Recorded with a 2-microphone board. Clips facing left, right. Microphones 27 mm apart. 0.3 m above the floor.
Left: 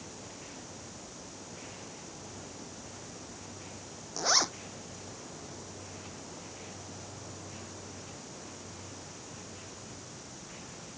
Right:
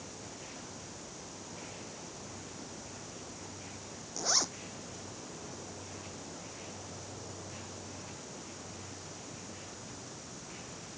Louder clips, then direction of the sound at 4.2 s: Left 5 dB; 25° left (ahead or behind).